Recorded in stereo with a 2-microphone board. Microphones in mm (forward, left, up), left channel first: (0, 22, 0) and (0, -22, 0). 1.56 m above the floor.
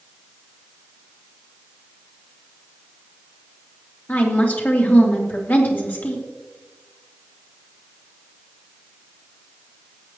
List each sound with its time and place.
4.1 s a woman speaking: 45° left (ahead or behind), 2.5 m